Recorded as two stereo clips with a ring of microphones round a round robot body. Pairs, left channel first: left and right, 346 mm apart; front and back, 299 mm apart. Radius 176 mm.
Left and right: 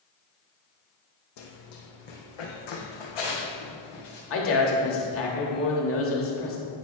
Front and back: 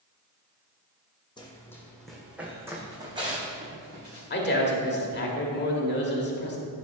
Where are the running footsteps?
75° left, 1.4 m; by 4.2 s 110° left, 2.5 m.